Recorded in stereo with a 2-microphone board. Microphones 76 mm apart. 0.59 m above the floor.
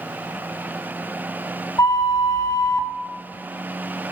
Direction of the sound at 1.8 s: 50° left (ahead or behind).